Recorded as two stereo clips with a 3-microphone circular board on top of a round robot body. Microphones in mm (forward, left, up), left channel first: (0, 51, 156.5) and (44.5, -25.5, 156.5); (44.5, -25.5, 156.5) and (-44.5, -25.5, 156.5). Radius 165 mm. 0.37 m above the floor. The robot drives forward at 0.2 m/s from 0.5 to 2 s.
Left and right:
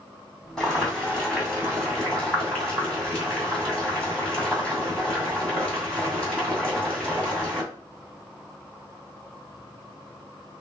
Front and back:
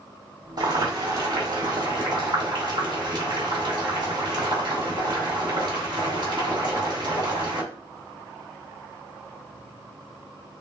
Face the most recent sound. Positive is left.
turn(degrees=-160)